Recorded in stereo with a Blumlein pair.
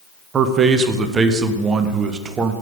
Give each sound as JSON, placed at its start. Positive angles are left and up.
{"t": 0.3, "sound": "a man speaking", "azimuth_deg": -20, "distance_m": 0.6}